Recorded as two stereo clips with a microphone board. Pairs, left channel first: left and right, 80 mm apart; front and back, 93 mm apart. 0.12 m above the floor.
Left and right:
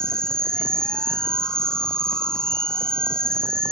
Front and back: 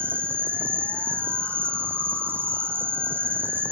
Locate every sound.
0.0 s an insect: 155° left